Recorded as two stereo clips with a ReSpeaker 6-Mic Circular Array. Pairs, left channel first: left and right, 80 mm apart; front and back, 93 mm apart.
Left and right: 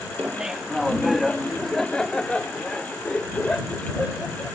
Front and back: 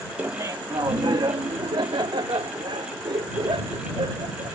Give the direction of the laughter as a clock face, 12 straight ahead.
5 o'clock.